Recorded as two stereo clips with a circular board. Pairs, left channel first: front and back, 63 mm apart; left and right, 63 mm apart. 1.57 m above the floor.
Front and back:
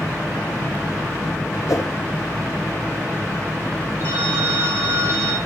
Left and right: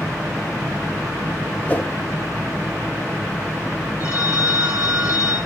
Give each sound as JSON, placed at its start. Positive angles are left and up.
{"t": 1.7, "sound": "a whoosh", "azimuth_deg": 30, "distance_m": 1.2}
{"t": 4.0, "sound": "a phone ringing", "azimuth_deg": 130, "distance_m": 6.5}